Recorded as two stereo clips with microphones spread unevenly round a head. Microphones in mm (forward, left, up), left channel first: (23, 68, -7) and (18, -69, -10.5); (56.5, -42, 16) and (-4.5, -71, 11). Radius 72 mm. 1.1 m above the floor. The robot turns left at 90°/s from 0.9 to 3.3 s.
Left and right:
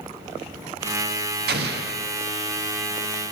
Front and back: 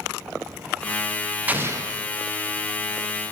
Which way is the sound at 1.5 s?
85° right.